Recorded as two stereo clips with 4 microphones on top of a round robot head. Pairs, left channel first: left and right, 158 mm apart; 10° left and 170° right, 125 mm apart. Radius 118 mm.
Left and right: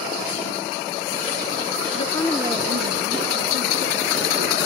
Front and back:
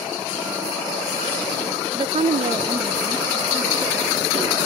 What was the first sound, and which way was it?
A woman speaking, 135° left.